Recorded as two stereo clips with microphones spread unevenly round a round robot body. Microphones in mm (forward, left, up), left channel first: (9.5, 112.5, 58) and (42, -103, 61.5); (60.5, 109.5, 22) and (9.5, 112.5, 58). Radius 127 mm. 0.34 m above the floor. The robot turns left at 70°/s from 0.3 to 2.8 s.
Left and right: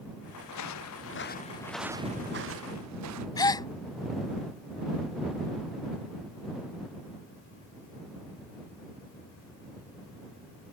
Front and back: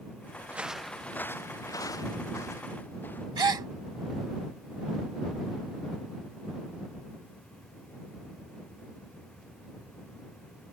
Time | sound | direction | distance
0.5 | footsteps | 120° left | ?
3.4 | a gasp | 175° left | ?